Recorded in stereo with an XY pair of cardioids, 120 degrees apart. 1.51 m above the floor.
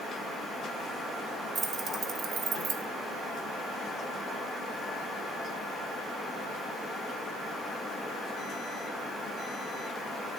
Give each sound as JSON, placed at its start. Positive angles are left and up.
{"t": 1.6, "sound": "keys jangling", "azimuth_deg": -30, "distance_m": 1.8}